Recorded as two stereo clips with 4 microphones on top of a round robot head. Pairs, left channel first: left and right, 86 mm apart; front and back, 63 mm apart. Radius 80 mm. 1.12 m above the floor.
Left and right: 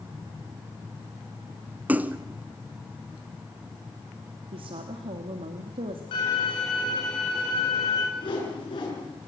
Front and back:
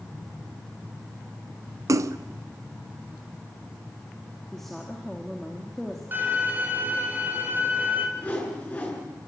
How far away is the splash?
About 0.9 m.